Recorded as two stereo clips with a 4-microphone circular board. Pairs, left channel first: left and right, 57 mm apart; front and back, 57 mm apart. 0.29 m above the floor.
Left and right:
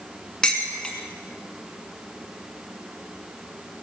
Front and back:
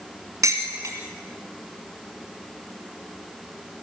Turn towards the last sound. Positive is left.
turn(degrees=170)